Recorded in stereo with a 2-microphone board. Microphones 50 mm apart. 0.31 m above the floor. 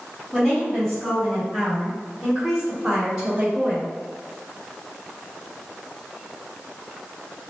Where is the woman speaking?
5° left (ahead or behind), 1.8 m; by 3.9 s 20° right (ahead or behind), 1.5 m.